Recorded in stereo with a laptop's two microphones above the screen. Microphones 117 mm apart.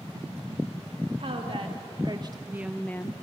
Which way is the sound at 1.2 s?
55° right (ahead or behind).